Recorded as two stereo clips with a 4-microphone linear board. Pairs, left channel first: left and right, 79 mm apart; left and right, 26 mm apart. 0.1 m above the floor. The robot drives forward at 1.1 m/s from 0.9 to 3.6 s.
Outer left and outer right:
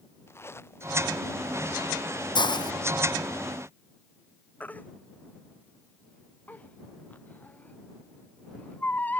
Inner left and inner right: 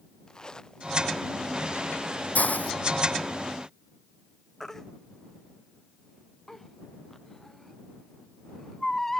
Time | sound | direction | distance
0.3 | a zipper | 30° left (ahead or behind) | ?
2.4 | a hiss | 75° left (ahead or behind) | ?
4.6 | a baby crying | 20° left (ahead or behind) | ?